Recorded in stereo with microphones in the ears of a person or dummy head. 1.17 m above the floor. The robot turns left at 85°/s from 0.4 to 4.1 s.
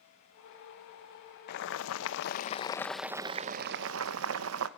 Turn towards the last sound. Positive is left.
turn(degrees=-90)